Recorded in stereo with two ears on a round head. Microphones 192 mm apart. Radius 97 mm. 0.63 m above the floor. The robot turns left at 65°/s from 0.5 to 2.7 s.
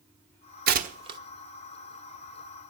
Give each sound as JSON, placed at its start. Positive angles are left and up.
{"t": 0.7, "sound": "tearing paper", "side_deg": -50, "distance_m": 1.1}